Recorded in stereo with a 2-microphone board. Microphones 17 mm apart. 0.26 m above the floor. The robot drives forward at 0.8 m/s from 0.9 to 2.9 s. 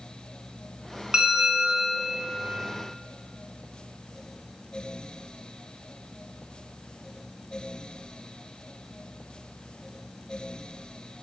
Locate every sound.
1.1 s a bell: 65° right (ahead or behind), 1.4 m; by 2.1 s 55° right (ahead or behind), 1.5 m